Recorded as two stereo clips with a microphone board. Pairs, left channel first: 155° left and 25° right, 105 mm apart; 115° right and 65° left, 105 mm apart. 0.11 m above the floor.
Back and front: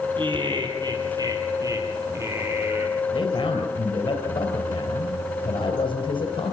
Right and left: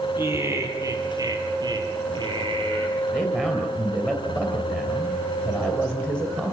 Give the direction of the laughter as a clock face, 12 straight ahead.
12 o'clock.